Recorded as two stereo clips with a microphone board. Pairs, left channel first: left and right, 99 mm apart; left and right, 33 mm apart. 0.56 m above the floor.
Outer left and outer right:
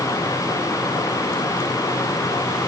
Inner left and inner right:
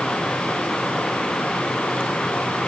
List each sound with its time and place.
Only background noise.